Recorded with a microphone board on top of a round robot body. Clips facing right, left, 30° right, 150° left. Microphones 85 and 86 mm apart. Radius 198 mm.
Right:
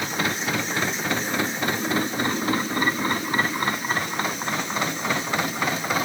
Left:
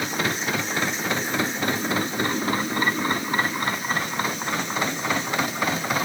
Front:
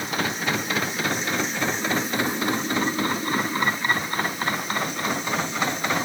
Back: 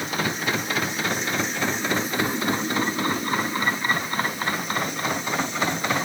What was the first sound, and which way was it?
Only background noise.